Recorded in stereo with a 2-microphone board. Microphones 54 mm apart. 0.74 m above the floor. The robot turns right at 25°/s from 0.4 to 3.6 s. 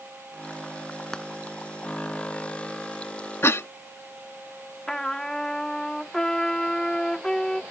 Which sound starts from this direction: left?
A cough, at 3.4 s.